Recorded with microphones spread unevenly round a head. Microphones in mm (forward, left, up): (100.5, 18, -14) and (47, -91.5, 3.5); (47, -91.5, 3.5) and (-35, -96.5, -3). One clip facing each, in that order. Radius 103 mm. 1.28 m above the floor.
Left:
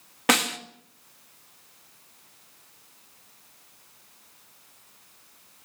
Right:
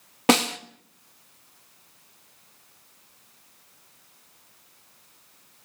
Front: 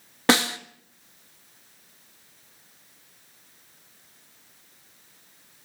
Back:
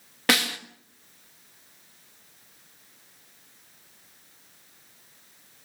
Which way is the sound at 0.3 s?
55° right.